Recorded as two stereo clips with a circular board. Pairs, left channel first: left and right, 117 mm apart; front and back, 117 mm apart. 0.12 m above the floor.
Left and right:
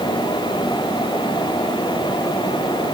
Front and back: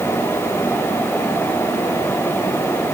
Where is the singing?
I don't hear singing.